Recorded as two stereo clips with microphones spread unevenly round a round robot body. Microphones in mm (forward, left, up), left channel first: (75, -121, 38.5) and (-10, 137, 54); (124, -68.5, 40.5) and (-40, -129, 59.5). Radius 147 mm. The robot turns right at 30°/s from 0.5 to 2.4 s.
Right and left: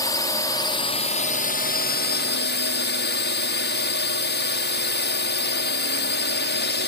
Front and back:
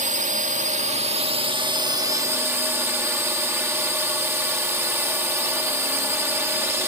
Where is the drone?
140° right; by 6.9 s 80° right.